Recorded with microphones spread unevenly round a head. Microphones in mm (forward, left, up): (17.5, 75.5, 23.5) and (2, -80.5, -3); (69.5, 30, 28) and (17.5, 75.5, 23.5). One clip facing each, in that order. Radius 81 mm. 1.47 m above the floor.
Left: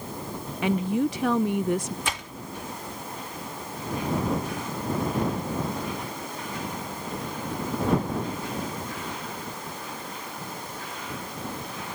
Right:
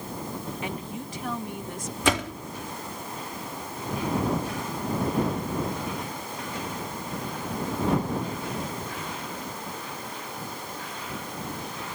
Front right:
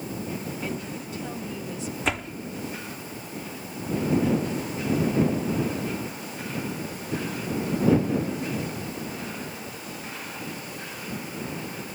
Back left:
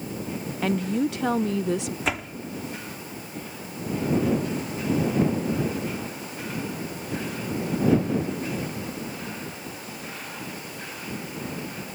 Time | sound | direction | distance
0.6 | a woman speaking | 120° left | ?
2.0 | a door slam | 130° right | ?